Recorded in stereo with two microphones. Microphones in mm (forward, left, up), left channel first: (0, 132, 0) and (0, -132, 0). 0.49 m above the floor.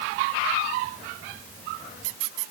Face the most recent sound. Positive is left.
No sound to turn to.